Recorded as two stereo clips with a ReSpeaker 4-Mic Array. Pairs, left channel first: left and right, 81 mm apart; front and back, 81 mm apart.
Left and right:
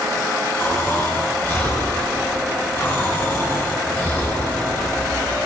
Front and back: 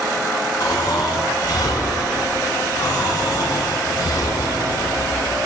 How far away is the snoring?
About 8.5 m.